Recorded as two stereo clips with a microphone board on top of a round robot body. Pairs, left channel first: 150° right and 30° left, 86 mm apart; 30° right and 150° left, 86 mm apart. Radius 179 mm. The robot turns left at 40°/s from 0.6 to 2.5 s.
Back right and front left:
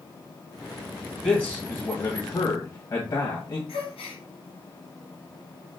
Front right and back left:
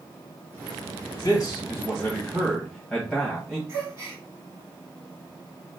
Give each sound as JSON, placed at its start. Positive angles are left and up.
{"t": 1.2, "sound": "a man speaking", "azimuth_deg": -60, "distance_m": 1.5}
{"t": 3.7, "sound": "a gasp", "azimuth_deg": -150, "distance_m": 1.6}